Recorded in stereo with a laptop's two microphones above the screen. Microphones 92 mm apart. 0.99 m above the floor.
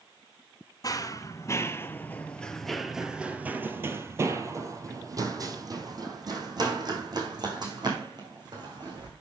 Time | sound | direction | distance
0.8 | running footsteps | 40° left (ahead or behind) | 1.3 m